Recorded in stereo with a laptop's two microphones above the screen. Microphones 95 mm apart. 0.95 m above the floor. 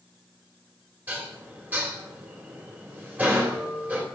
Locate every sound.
1.1 s dishes clattering: 20° right (ahead or behind), 2.5 m